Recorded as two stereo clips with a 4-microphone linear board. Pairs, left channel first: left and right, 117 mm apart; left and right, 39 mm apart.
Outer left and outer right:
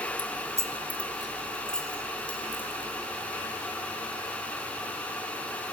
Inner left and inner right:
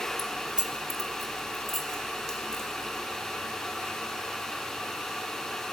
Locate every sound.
0.2 s keys jangling: 40° right (ahead or behind), 1.4 m; by 5.0 s 25° left (ahead or behind), 7.5 m